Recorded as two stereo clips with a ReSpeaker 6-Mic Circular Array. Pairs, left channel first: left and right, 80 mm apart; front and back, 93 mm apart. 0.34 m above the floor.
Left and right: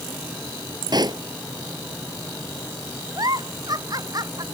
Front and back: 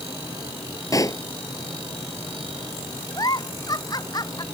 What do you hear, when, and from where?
0.9 s a pop: 55° right
3.2 s a giggle: 50° right